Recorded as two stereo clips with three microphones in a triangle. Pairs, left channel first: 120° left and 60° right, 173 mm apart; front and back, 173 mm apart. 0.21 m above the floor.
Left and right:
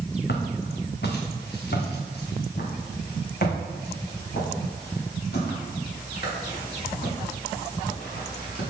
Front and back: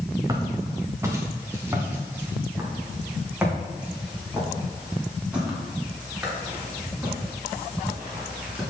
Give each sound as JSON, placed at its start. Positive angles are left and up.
{"t": 0.3, "sound": "footsteps", "azimuth_deg": 115, "distance_m": 1.7}